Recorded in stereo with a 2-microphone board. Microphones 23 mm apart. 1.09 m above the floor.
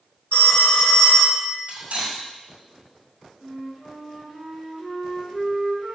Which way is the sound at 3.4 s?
20° right (ahead or behind).